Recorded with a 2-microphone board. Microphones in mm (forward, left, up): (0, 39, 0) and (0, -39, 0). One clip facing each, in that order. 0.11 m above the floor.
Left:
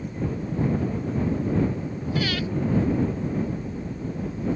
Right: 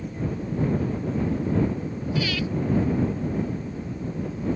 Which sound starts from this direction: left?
Breathing, at 2.1 s.